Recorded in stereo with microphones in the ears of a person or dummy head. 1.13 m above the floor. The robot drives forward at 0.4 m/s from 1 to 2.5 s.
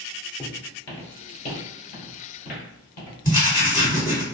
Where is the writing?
15° left (ahead or behind), 1.9 m.